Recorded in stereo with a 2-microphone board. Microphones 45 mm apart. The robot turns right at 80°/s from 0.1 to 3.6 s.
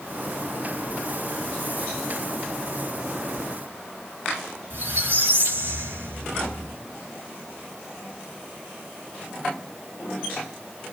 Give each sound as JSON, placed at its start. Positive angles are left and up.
{"t": 4.7, "sound": "a squeak", "side_deg": -45, "distance_m": 1.0}